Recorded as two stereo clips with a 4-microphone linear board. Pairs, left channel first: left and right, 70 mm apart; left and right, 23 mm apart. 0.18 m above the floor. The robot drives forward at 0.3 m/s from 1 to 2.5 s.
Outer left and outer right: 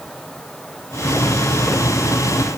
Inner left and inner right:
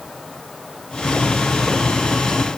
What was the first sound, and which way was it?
Only background noise.